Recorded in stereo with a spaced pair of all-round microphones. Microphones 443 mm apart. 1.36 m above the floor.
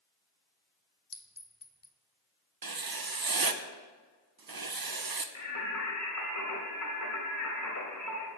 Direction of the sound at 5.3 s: 40° left (ahead or behind).